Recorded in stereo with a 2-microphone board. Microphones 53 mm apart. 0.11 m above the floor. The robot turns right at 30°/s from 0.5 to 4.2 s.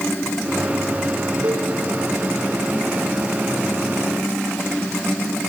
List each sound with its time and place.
1.4 s a cowbell: 70° right (ahead or behind), 8 m; by 1.7 s 60° right (ahead or behind), 8 m